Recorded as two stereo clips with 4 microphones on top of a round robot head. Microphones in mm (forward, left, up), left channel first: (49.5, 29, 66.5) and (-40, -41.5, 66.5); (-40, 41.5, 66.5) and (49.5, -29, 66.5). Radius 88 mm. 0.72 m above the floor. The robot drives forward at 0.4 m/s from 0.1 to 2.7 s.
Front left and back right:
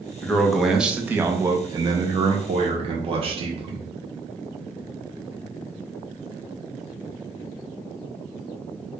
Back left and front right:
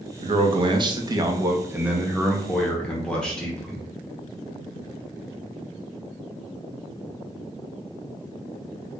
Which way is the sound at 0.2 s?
45° right.